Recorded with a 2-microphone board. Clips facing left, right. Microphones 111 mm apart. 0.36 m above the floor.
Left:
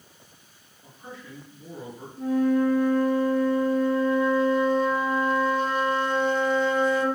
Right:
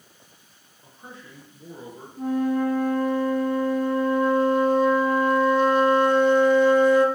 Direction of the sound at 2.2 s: 65° right (ahead or behind).